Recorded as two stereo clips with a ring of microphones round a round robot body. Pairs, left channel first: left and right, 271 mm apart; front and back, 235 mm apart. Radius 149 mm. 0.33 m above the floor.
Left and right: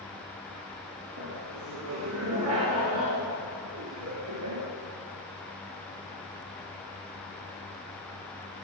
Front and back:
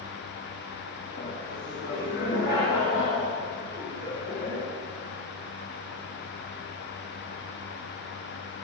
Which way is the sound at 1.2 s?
55° right.